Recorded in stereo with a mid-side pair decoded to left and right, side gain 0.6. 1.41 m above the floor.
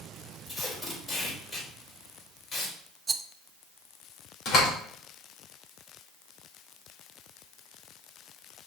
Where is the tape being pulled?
35° left, 3.5 m.